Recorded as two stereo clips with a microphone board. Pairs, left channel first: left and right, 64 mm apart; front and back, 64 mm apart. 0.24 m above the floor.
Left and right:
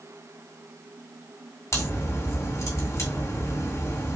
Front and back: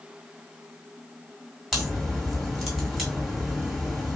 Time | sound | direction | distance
1.7 | a crack | 95° left | 2 m